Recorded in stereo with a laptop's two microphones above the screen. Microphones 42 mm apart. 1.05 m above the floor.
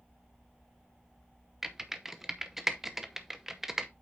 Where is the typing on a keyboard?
10° right (ahead or behind), 0.8 m.